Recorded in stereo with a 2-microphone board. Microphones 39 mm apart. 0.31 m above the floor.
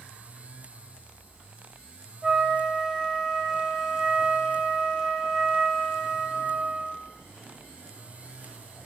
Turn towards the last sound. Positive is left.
turn(degrees=-15)  # may be behind; listen again after turning